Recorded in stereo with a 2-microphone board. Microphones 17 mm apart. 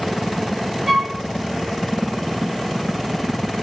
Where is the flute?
20° right (ahead or behind), 1.2 m.